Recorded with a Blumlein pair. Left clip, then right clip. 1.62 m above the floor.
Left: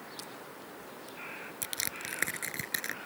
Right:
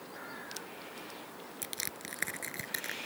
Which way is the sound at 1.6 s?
10° left.